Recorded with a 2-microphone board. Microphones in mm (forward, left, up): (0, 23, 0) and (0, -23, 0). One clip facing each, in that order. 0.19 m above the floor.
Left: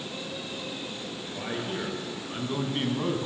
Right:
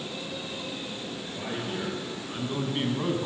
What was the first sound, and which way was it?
A man speaking, 15° left (ahead or behind).